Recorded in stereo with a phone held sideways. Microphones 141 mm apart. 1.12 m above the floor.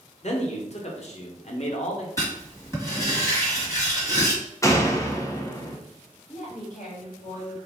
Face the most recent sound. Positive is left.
turn(degrees=65)  # may be behind; listen again after turning